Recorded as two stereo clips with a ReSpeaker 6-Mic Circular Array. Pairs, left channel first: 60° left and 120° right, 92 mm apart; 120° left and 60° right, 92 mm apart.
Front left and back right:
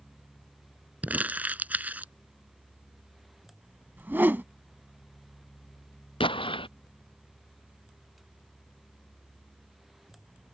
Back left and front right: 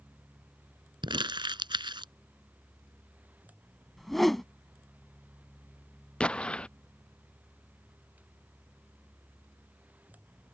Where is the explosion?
40° left.